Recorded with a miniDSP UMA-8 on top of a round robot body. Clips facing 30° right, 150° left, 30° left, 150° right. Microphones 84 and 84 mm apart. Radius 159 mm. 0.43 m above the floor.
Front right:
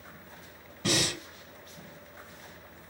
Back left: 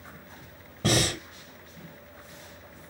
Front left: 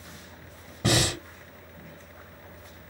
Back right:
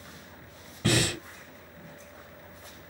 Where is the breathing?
100° left, 1.4 m.